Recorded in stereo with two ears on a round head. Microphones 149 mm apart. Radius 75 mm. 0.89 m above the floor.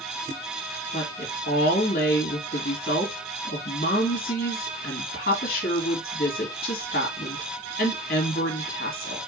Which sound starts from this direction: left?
A woman speaking, at 0.9 s.